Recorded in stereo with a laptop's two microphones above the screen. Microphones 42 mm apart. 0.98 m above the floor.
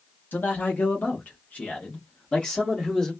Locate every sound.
0.3 s a man speaking: 50° left (ahead or behind), 1.1 m; by 3.1 s 15° left (ahead or behind), 1.6 m